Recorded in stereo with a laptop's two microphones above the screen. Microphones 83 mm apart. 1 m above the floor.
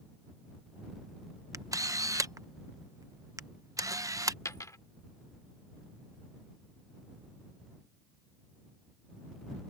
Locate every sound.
1.5 s a camera shutter: 40° right (ahead or behind)
4.5 s a dropped coin: 40° left (ahead or behind)